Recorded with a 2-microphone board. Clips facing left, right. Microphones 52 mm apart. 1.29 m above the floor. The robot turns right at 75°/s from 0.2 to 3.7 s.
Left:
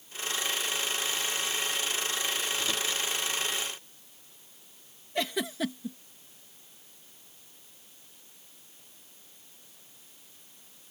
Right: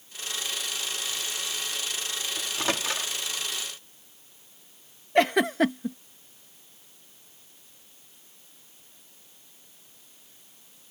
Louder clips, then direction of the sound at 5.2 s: Right 10 dB; 55° right (ahead or behind).